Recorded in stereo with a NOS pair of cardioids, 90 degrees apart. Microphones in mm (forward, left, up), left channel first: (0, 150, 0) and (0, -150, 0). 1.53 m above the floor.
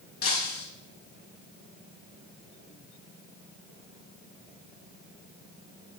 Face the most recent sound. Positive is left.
turn(degrees=55)